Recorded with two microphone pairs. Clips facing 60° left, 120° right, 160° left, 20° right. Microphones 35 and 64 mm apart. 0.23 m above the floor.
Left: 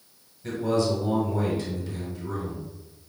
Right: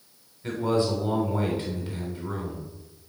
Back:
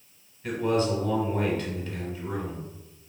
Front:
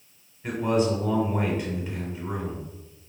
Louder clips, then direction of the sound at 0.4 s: Even, front 1 dB; 80° right.